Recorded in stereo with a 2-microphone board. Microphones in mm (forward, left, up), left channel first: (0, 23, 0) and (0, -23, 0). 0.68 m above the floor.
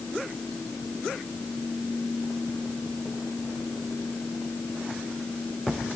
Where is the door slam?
I don't hear a door slam.